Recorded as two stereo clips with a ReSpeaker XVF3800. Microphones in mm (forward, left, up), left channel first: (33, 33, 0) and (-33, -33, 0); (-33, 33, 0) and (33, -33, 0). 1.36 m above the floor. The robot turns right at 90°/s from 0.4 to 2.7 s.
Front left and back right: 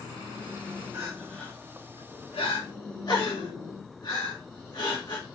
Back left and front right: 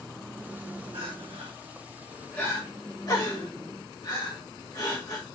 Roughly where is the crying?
Right.